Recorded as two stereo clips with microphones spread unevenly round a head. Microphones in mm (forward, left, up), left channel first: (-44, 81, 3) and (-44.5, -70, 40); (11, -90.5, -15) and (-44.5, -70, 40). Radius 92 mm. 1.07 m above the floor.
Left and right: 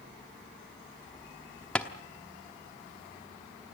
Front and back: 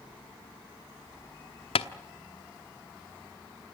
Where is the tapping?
5° right, 0.8 m.